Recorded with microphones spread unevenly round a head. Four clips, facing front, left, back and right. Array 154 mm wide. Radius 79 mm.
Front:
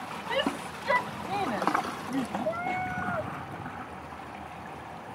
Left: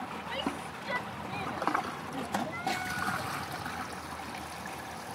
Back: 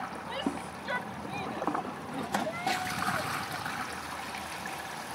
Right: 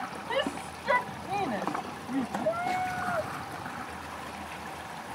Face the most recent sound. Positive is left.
turn(degrees=-65)